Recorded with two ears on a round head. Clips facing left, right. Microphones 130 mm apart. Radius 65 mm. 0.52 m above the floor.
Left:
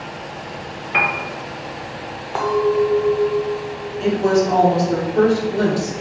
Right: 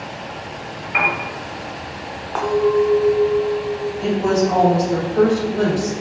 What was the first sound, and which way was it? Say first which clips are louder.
A piano: even; 45° left (ahead or behind).